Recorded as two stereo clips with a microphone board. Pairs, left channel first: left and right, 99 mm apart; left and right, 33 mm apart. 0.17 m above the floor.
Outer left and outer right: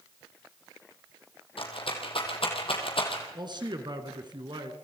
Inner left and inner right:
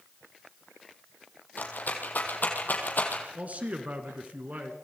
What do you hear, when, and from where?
1.6 s a rattle: 65° left (ahead or behind), 4 m
3.4 s a man speaking: 50° right (ahead or behind), 2.5 m